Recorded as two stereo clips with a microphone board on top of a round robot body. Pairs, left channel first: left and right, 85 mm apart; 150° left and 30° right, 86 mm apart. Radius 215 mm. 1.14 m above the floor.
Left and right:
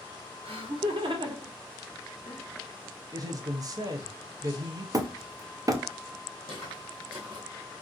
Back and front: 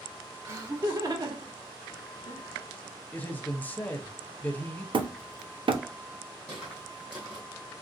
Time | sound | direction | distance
0.5 | laughter | 90° right | 1.4 m
3.1 | a man speaking | 135° right | 0.6 m
4.9 | hammering | 40° right | 0.6 m
6.5 | footsteps | 105° right | 1.4 m